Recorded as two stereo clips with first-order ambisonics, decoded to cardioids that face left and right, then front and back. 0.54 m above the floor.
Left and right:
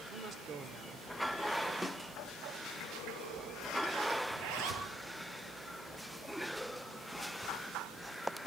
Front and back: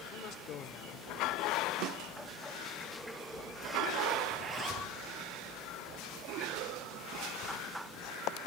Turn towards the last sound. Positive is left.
turn(degrees=-115)